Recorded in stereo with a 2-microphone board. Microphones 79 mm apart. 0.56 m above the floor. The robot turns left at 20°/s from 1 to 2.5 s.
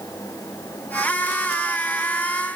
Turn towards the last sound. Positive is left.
No sound to turn to.